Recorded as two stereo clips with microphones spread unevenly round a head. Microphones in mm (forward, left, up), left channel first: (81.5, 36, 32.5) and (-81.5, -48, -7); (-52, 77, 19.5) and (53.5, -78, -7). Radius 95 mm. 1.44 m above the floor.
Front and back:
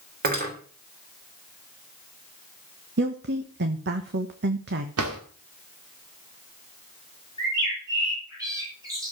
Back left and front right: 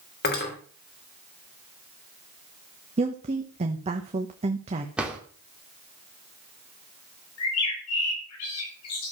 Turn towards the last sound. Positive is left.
turn(degrees=135)